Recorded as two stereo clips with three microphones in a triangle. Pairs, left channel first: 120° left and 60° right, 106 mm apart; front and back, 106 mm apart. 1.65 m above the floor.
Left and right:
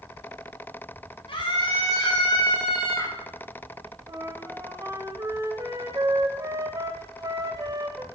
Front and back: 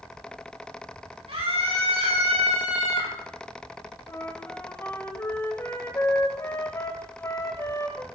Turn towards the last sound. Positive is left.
turn(degrees=-40)